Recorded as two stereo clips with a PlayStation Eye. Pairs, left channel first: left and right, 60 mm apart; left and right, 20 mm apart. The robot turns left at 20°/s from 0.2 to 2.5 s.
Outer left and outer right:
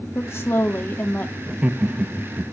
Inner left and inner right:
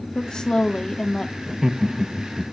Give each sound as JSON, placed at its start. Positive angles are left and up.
{"t": 0.1, "sound": "a woman speaking", "side_deg": 45, "distance_m": 1.7}
{"t": 1.5, "sound": "laughter", "side_deg": -20, "distance_m": 0.7}